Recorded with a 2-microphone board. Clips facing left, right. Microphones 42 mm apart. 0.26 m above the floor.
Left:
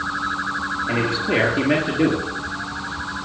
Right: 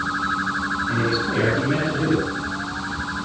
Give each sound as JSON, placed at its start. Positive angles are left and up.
{"t": 0.9, "sound": "a man speaking", "side_deg": 75, "distance_m": 6.5}